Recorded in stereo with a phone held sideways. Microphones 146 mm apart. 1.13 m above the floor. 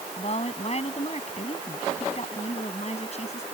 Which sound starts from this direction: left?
A woman speaking, at 0.2 s.